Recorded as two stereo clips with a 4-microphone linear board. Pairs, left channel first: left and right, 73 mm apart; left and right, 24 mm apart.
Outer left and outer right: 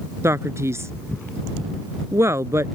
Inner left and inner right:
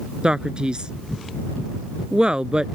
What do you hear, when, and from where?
0.2 s a man speaking: 35° right (ahead or behind)